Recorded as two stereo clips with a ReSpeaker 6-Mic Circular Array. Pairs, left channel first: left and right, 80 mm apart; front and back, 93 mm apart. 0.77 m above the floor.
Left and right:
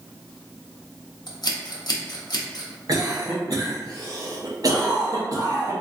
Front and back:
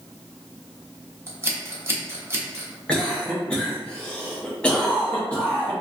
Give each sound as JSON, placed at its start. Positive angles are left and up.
{"t": 1.3, "sound": "scissors", "azimuth_deg": 120, "distance_m": 0.7}
{"t": 2.9, "sound": "a cough", "azimuth_deg": -75, "distance_m": 0.9}